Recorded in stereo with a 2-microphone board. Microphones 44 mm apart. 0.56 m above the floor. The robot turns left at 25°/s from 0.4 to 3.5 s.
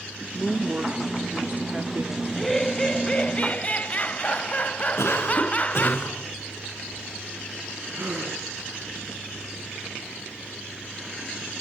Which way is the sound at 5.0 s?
80° left.